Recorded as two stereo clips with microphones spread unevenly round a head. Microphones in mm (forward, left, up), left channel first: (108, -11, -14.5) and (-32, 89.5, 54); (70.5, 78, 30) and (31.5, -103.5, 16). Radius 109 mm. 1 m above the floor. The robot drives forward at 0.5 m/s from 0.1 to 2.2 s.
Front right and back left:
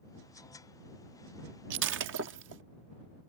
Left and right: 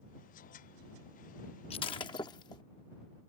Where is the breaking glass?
145° left; by 2.6 s 150° left.